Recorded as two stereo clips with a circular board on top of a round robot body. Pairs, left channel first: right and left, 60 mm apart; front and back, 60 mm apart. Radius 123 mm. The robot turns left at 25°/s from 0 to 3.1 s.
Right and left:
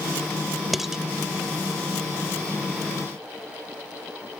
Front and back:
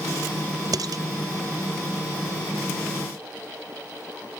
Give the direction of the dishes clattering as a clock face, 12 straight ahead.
6 o'clock.